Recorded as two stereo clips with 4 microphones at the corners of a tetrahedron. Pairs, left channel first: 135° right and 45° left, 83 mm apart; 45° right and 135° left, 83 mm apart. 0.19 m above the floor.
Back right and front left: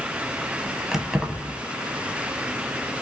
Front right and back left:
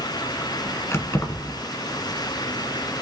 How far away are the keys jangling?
About 1.2 m.